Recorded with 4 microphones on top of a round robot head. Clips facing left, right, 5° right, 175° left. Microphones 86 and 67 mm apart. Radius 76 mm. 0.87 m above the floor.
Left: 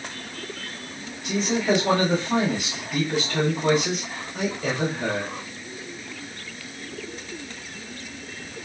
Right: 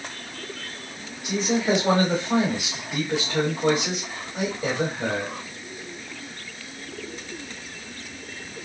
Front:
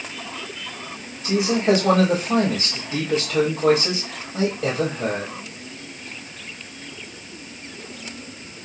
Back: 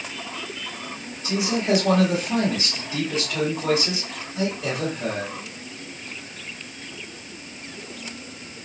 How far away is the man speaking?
About 4 m.